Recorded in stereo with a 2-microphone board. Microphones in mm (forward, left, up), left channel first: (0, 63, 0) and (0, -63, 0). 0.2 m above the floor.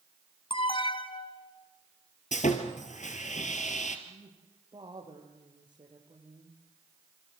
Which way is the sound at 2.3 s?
75° left (ahead or behind).